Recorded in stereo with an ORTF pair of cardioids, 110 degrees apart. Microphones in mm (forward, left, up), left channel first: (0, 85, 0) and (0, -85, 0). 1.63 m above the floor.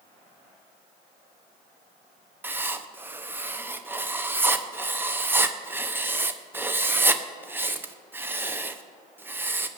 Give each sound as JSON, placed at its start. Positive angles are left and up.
{"t": 2.4, "sound": "writing", "azimuth_deg": -10, "distance_m": 1.0}